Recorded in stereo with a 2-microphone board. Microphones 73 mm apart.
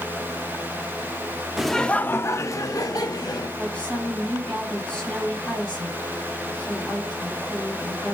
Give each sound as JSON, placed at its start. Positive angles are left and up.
{"t": 1.6, "sound": "laughter", "side_deg": -5, "distance_m": 0.7}
{"t": 3.6, "sound": "a woman speaking", "side_deg": 10, "distance_m": 4.0}